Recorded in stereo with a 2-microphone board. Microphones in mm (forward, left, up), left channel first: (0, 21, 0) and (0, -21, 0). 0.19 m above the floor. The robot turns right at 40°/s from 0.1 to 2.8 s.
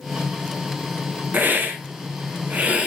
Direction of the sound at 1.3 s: 105° right.